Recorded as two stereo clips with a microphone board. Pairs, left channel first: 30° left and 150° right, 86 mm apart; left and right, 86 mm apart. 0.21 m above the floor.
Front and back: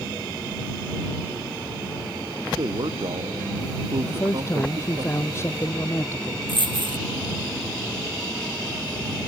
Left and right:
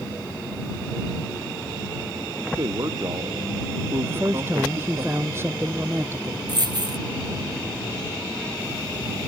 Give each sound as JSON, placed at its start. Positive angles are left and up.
{"t": 2.6, "sound": "a man speaking", "azimuth_deg": -130}
{"t": 4.0, "sound": "a man speaking", "azimuth_deg": -30}
{"t": 6.5, "sound": "a dropped coin", "azimuth_deg": -130}